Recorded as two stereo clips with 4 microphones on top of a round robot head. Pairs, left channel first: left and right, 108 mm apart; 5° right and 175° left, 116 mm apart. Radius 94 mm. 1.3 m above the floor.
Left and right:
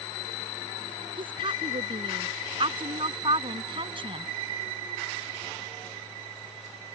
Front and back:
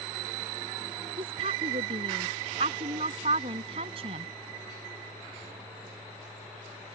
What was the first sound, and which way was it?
A woman speaking, 130° right.